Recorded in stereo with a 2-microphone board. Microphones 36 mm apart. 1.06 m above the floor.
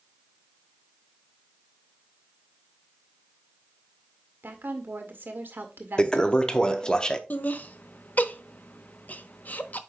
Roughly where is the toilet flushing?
Left.